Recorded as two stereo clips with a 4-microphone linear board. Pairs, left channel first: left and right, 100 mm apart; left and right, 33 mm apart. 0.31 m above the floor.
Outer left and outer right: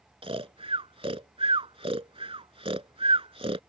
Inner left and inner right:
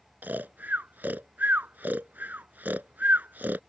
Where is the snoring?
75° right (ahead or behind).